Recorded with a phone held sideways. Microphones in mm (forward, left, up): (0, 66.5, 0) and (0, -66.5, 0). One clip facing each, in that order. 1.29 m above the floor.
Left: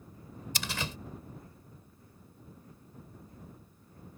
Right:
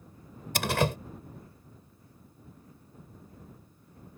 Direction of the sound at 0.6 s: 60° right (ahead or behind).